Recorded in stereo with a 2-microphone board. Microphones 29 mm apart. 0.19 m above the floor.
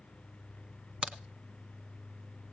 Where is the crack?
45° right (ahead or behind), 0.9 m.